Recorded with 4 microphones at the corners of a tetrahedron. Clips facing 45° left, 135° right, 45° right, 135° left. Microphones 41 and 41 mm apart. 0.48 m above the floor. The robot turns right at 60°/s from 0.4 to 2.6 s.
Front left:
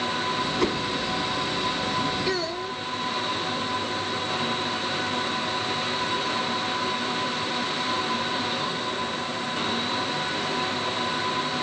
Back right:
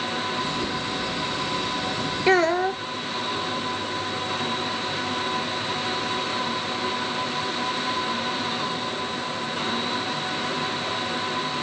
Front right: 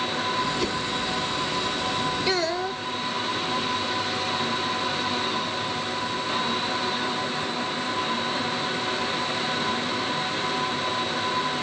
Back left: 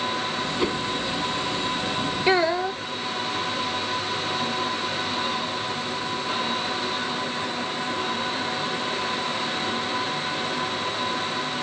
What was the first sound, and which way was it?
A whoosh, 65° left.